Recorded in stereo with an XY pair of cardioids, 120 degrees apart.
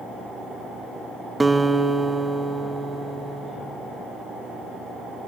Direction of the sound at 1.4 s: 10° right.